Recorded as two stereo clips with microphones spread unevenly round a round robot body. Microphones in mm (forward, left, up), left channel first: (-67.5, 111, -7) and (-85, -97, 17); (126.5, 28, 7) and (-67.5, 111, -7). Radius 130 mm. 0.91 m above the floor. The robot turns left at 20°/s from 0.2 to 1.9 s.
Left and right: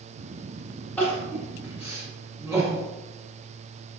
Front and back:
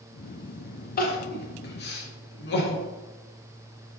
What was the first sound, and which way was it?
Crying, 10° left.